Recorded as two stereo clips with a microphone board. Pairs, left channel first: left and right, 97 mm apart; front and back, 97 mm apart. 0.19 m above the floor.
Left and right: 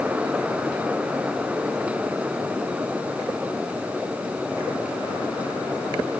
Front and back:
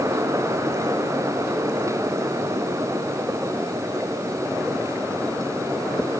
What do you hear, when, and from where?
Only background noise.